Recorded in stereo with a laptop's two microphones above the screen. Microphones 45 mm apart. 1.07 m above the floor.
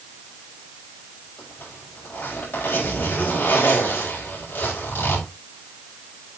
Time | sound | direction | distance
1.4 | a zipper | 55° left (ahead or behind) | 4.5 m